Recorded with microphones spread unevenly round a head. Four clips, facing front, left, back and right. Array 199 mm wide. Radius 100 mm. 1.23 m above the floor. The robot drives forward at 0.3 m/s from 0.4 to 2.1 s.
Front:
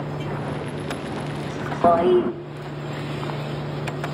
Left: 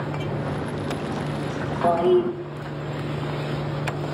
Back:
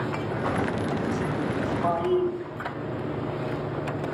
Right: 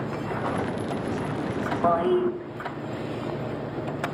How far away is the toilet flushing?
About 1.5 m.